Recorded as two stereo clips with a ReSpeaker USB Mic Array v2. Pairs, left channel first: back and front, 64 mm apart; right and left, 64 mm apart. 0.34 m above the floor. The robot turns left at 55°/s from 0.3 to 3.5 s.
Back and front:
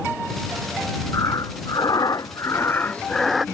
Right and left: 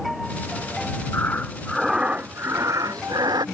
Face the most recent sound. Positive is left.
turn(degrees=85)